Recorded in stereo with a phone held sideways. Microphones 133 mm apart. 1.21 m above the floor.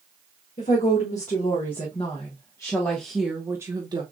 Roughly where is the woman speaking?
Left.